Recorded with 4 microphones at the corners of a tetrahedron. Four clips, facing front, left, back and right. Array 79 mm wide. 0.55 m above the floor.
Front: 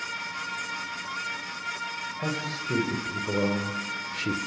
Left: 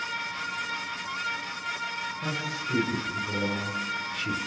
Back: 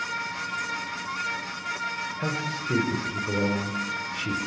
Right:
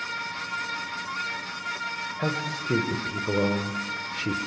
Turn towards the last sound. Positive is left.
turn(degrees=-40)